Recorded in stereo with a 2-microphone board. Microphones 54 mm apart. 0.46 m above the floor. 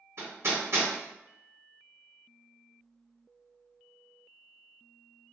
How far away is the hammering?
About 1.7 m.